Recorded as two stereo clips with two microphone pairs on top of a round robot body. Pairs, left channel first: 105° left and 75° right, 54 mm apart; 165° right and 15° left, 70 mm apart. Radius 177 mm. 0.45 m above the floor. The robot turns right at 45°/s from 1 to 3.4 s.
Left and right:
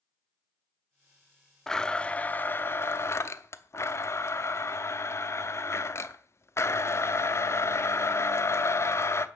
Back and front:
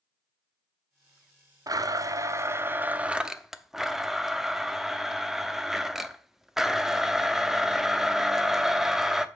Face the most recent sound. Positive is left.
turn(degrees=100)